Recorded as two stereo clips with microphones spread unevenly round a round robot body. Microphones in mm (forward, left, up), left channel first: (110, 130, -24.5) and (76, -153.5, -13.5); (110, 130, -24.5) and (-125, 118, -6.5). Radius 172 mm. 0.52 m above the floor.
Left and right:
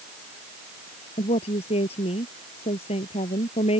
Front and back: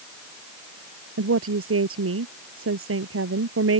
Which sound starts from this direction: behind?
A woman speaking, at 1.2 s.